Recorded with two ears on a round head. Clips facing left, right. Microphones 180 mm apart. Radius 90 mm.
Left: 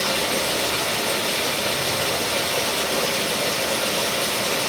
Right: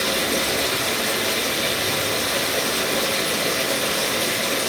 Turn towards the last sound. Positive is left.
turn(degrees=-80)